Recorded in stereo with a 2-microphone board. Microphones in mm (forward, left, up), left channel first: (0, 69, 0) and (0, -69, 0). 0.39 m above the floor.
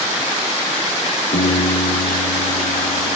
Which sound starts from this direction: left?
A piano, at 1.3 s.